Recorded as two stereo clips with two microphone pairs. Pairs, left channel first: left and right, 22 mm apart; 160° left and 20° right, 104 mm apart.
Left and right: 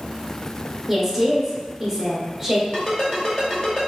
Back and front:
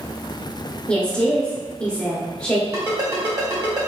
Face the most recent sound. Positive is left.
turn(degrees=35)